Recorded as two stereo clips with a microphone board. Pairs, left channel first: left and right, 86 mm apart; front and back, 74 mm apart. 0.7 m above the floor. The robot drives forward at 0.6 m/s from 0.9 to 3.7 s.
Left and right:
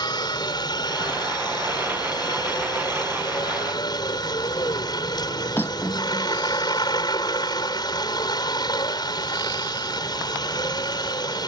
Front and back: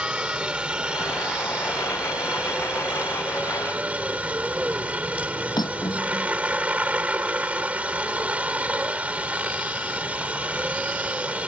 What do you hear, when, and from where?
0.0 s a helicopter: 105° left; by 11.5 s 110° left
5.6 s cutlery clinking: 25° left